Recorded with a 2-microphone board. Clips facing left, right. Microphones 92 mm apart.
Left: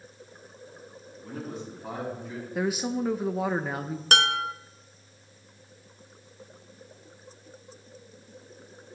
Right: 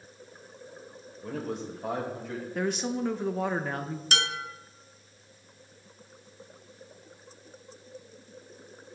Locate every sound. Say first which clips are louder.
1.2 s a man speaking: right 3 dB; 80° right, 4 m
2.5 s a woman speaking: left 2 dB; 5° left (ahead or behind), 0.6 m
4.1 s dishes clattering: left 8 dB; 55° left (ahead or behind), 0.9 m